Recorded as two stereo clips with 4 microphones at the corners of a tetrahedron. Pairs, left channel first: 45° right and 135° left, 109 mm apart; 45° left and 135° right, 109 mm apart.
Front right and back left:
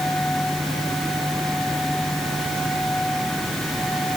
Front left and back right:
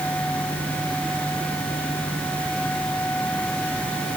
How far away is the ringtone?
I don't hear a ringtone.